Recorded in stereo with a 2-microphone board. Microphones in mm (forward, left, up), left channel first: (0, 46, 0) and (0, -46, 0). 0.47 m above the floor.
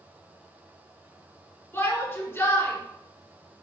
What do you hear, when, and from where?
1.7 s a shout: 25° left (ahead or behind), 1.8 m